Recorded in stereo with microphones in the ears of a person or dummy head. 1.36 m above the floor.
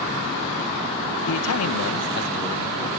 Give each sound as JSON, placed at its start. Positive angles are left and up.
{"t": 1.3, "sound": "a man speaking", "side_deg": 70, "distance_m": 1.4}